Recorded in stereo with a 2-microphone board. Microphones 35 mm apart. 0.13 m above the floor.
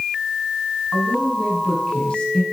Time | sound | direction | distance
0.9 | a woman speaking | 25° left (ahead or behind) | 4 m